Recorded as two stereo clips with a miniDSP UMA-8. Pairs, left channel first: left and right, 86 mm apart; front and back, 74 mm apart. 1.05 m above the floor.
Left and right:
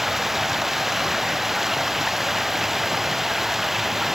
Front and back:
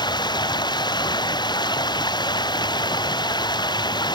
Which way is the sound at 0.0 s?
Straight ahead.